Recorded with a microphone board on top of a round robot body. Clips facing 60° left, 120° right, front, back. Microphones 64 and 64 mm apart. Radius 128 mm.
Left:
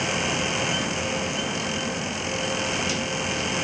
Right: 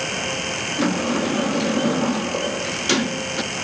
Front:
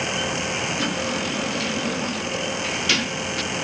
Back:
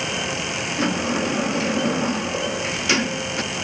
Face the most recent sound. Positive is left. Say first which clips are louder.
# right 6 dB, back 3 dB
turn(degrees=-115)